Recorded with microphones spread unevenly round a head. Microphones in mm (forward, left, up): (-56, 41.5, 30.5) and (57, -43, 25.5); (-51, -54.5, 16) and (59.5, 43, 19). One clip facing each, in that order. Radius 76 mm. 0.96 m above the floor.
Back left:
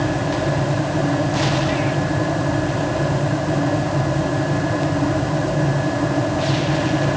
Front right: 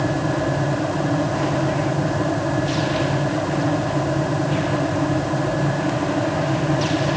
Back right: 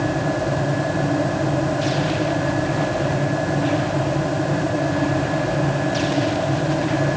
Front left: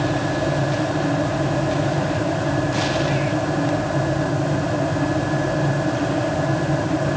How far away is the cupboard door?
I don't hear a cupboard door.